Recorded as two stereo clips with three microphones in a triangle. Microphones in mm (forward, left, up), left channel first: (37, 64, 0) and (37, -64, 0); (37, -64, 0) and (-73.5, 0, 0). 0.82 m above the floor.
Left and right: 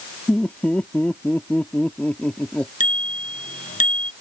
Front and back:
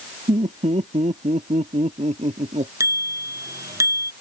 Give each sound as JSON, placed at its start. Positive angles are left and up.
{"t": 0.3, "sound": "laughter", "azimuth_deg": 170}
{"t": 2.8, "sound": "a bicycle bell", "azimuth_deg": 85}